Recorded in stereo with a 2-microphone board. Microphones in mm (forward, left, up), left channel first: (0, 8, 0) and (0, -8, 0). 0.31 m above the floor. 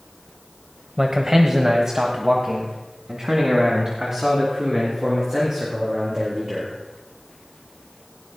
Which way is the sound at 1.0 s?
35° right (ahead or behind).